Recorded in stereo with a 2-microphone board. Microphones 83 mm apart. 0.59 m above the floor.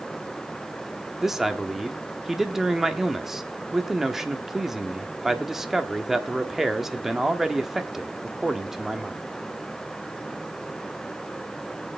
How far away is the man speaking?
About 1.2 m.